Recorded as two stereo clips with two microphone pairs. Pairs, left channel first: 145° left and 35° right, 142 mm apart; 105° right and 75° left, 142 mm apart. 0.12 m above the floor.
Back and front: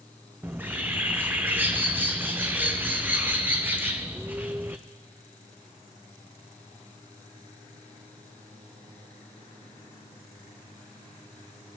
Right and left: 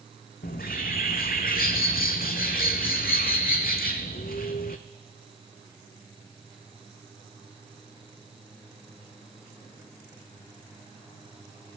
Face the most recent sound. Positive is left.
turn(degrees=-110)